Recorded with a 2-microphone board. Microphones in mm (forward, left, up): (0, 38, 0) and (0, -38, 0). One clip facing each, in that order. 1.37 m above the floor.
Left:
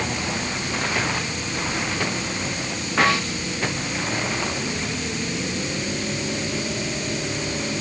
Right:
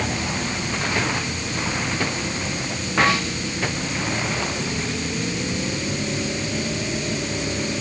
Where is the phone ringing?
No phone ringing in this recording.